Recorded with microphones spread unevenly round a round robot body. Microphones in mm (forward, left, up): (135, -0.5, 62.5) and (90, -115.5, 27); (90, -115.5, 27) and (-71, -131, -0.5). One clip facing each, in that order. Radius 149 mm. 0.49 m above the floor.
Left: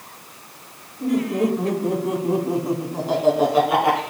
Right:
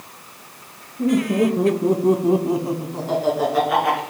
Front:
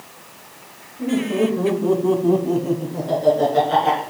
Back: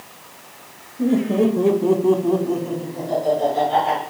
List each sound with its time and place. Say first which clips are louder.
1.0 s laughter: right 3 dB, back 2 dB; 135° right, 2.5 m; by 4.0 s 5° left, 2.5 m